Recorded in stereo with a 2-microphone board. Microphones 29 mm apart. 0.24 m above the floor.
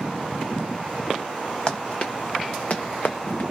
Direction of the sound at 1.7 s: 30° left (ahead or behind).